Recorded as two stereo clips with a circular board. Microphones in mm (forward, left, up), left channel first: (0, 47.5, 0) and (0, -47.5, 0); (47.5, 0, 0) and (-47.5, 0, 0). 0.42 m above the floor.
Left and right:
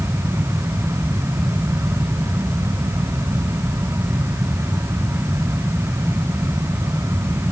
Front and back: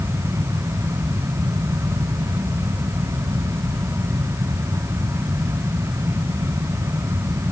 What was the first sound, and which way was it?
Only background noise.